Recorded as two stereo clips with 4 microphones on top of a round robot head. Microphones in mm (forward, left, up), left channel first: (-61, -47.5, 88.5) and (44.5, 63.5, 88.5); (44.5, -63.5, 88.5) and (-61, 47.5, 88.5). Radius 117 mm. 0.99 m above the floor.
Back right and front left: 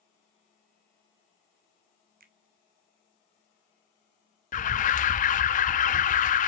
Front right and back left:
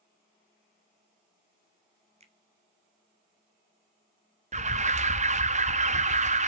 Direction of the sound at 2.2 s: 80° left.